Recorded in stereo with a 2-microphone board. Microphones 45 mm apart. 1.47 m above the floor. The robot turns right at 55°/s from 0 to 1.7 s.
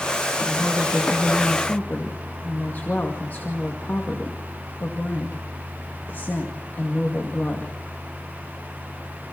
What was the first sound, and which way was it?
A woman speaking, 25° right.